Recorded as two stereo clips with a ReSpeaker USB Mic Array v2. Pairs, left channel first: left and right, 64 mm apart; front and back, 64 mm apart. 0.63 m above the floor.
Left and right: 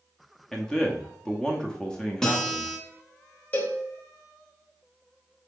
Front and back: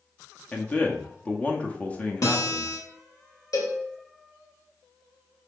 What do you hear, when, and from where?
0.5 s a man speaking: 25° left, 0.8 m
2.2 s a guitar: 10° left, 1.2 m
3.5 s a cowbell: 25° left, 1.0 m